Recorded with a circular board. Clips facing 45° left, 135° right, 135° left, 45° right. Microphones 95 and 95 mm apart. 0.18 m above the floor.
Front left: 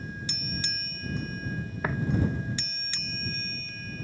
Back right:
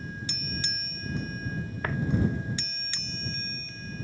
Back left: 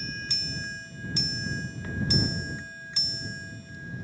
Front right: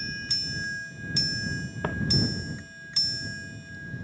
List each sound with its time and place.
1.8 s footsteps: 35° right